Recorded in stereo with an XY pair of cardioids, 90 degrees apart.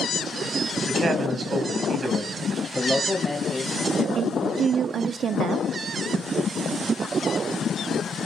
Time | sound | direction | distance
0.9 | a man speaking | 55° right | 5 m
2.8 | a man speaking | 10° left | 2 m
4.2 | a woman speaking | 70° right | 0.8 m